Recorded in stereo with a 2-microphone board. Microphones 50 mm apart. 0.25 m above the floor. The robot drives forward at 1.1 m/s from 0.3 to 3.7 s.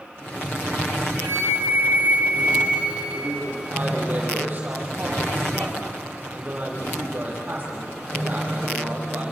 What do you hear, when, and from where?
1.2 s a flute: 75° right (ahead or behind), 0.8 m; by 3.7 s 15° right (ahead or behind), 3 m
3.1 s a man speaking: 40° right (ahead or behind), 8 m; by 9.3 s 35° right (ahead or behind), 8.5 m